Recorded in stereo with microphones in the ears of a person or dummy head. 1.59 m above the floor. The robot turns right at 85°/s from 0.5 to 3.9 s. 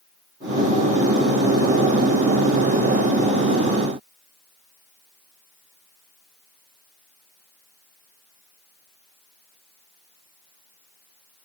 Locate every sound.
Only background noise.